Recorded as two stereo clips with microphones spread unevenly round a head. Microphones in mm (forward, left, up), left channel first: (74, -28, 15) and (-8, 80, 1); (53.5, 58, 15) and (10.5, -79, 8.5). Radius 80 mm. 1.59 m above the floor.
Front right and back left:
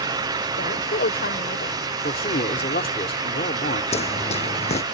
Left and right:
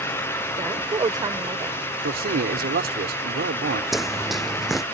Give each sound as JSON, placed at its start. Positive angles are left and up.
{"t": 0.6, "sound": "a woman speaking", "azimuth_deg": -45}
{"t": 2.0, "sound": "a man speaking", "azimuth_deg": -95}
{"t": 3.9, "sound": "running footsteps", "azimuth_deg": -20}